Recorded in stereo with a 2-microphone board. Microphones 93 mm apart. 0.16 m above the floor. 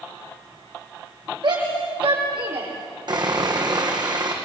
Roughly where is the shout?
Right.